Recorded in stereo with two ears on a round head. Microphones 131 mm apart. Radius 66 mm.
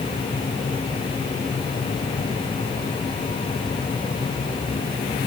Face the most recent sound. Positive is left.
No sound to turn to.